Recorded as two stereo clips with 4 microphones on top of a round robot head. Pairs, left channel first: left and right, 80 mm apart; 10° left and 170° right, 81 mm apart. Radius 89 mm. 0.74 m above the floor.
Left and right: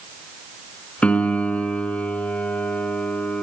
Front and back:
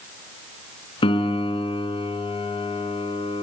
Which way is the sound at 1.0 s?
15° left.